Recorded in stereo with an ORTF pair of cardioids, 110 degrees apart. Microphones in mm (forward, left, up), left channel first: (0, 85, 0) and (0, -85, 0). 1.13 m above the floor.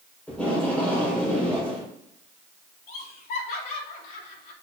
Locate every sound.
0.3 s tape being pulled: 5° left, 5 m
2.9 s laughter: 60° left, 3 m